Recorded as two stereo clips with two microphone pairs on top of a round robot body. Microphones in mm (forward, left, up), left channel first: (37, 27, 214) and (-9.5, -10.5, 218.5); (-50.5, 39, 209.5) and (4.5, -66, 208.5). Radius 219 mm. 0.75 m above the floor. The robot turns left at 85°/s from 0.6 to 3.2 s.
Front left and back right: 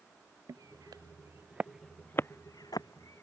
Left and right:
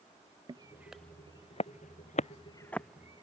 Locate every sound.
0.5 s footsteps: 115° right; by 3.2 s 5° right